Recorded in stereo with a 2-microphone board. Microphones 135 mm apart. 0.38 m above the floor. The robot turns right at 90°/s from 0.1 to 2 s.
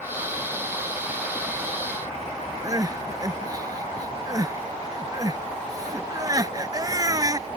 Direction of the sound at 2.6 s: 30° right (ahead or behind).